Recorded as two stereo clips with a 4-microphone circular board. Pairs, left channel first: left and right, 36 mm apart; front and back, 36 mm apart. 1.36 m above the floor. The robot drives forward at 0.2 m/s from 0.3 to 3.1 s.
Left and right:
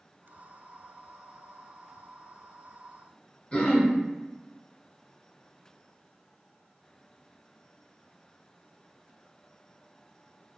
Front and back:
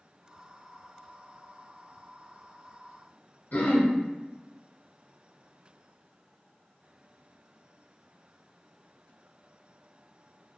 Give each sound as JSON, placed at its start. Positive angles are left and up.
{"t": 3.5, "sound": "throat clearing", "azimuth_deg": 30, "distance_m": 0.7}